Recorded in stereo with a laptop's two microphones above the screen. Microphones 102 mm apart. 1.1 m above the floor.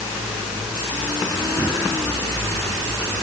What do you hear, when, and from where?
Only background noise.